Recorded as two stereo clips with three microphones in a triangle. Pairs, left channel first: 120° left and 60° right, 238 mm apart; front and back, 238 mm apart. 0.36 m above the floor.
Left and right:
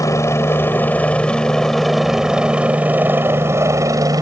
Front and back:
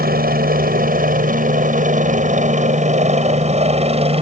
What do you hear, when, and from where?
0.0 s a helicopter: 170° right; by 4.2 s 125° right